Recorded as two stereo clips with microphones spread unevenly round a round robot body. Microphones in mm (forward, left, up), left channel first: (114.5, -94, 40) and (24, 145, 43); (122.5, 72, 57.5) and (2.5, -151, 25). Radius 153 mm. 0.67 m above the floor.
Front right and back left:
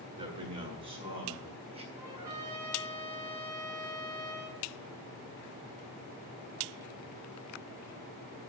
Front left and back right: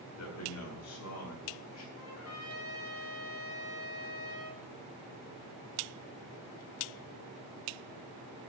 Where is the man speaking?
40° left, 7 m; by 1.9 s 45° left, 6 m.